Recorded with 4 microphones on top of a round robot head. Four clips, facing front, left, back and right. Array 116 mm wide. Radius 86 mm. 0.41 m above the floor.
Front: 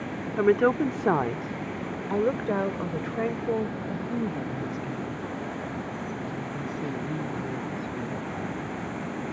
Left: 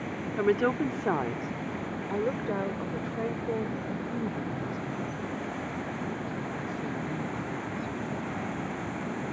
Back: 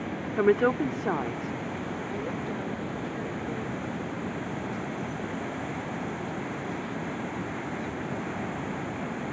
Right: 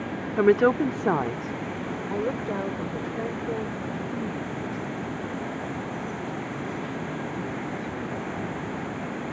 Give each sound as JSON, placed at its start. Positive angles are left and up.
{"t": 0.4, "sound": "a woman speaking", "azimuth_deg": -90}